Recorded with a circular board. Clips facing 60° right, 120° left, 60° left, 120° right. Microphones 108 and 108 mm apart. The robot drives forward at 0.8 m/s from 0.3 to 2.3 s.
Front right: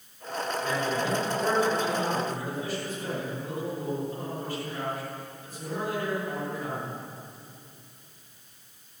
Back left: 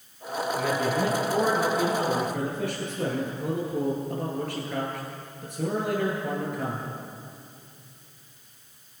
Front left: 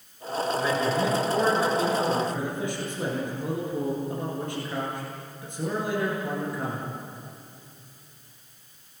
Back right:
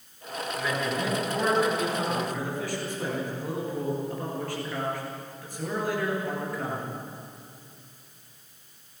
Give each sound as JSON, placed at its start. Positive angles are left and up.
{"t": 0.6, "sound": "a man speaking", "azimuth_deg": 120, "distance_m": 9.5}